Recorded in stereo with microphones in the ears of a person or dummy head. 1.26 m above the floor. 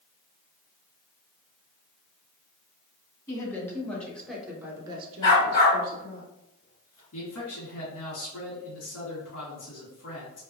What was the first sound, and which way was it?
A woman speaking, 20° left (ahead or behind).